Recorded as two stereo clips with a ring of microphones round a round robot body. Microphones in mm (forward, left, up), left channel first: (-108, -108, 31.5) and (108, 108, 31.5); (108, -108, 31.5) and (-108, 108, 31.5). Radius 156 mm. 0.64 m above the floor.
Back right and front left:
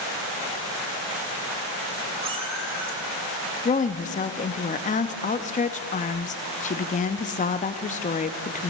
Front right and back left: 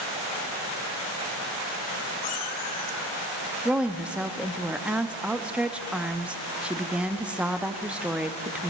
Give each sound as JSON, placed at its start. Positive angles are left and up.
{"t": 2.2, "sound": "a cat meowing", "azimuth_deg": -30, "distance_m": 3.0}
{"t": 3.6, "sound": "a woman speaking", "azimuth_deg": -145, "distance_m": 0.5}